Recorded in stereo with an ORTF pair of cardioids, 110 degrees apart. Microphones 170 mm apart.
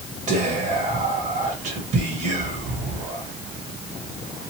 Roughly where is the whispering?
Ahead right.